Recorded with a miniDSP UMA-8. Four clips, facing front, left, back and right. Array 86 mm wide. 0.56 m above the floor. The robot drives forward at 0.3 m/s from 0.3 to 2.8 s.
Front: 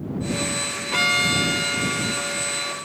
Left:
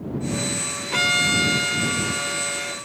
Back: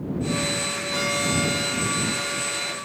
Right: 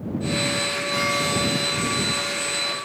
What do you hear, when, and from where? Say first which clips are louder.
0.9 s a violin: left 2 dB, front 3 dB; 40° left, 0.7 m; by 2.8 s 110° left, 0.6 m